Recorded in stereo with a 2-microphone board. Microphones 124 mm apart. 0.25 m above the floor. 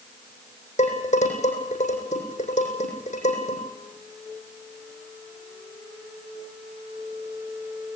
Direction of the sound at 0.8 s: 75° left (ahead or behind).